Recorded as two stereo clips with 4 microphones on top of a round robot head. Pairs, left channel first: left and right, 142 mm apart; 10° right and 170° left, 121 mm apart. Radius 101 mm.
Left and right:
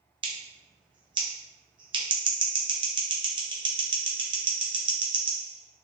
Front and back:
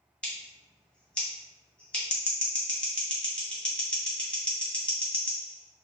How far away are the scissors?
About 0.7 m.